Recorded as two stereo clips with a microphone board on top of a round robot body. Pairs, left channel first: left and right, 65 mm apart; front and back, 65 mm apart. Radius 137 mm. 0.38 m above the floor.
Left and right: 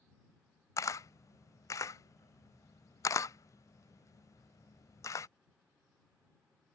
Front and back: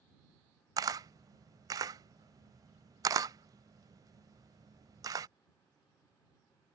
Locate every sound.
0.8 s a camera shutter: 140° left